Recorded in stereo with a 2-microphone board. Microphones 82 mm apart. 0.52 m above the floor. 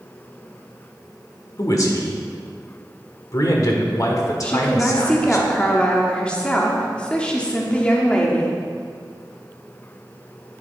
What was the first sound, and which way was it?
A man speaking, 50° left (ahead or behind).